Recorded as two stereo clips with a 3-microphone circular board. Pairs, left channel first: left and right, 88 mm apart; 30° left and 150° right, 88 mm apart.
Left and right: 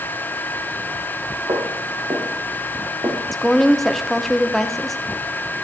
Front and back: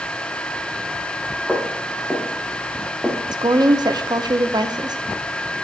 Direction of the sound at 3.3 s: 175° left.